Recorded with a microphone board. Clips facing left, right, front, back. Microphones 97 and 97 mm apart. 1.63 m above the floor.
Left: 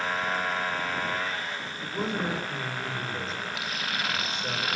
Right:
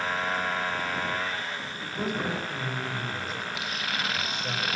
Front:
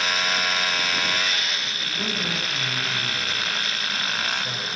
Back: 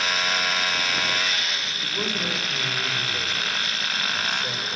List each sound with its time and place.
1.8 s a man speaking: 150° left, 8 m